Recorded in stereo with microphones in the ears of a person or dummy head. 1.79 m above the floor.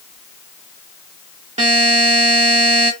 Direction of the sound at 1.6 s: 35° right (ahead or behind).